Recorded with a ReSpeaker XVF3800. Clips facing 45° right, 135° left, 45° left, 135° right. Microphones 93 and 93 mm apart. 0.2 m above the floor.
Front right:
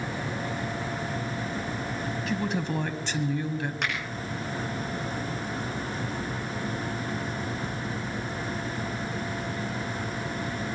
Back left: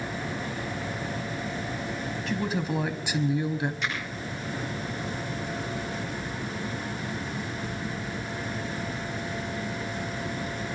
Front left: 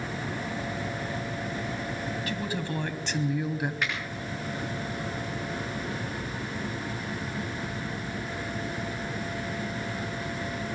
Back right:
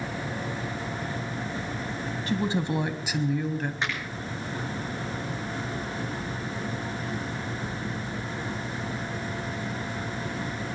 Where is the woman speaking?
135° right, 1.1 m; by 3.7 s 100° left, 1.0 m.